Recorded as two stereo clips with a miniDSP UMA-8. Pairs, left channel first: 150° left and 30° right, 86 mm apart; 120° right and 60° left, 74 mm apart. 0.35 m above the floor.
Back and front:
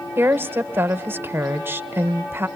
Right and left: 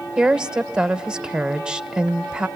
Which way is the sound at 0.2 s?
10° right.